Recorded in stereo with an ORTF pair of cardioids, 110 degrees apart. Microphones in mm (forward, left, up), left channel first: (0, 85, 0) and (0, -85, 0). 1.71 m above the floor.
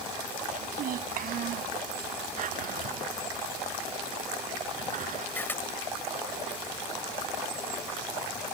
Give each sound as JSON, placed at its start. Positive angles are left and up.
{"t": 0.5, "sound": "a child speaking", "azimuth_deg": -60}
{"t": 2.4, "sound": "a drawer", "azimuth_deg": -55}
{"t": 5.3, "sound": "a camera shutter", "azimuth_deg": 10}